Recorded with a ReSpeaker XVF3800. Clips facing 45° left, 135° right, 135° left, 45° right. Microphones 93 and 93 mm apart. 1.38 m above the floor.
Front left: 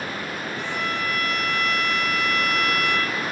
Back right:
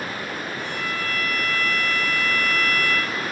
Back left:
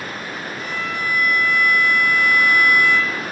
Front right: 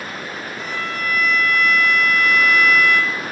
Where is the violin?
45° left, 1.2 m.